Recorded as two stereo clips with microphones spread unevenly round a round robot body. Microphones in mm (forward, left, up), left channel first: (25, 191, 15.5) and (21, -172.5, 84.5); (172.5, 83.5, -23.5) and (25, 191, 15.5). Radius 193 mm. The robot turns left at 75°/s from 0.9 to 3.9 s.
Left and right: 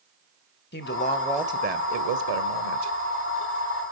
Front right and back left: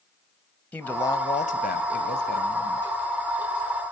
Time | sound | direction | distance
0.7 | a woman speaking | 35° left | 1.9 m